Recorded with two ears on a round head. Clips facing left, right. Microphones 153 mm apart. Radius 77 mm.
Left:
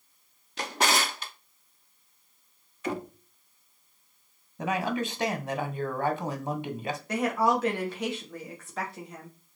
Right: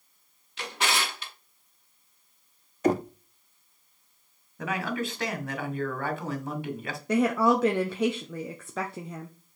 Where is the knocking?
35° right (ahead or behind), 0.7 m.